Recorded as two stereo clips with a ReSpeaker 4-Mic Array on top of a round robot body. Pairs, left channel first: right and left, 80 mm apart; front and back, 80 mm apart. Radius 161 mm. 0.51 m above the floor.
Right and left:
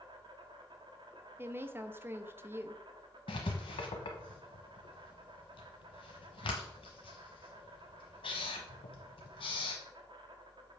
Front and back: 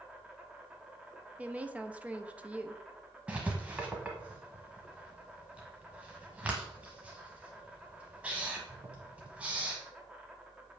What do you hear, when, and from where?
0.0 s an insect: 105° left, 1.2 m
1.4 s a woman speaking: 125° left, 0.9 m
3.3 s writing: 105° right, 0.6 m